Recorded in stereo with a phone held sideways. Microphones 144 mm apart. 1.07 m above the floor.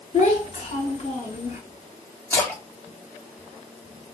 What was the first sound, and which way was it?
A child speaking, 45° left (ahead or behind).